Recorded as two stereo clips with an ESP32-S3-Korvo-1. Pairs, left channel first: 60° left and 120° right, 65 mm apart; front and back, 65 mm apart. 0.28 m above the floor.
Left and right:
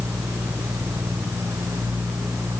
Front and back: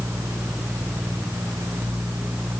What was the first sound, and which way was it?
Only background noise.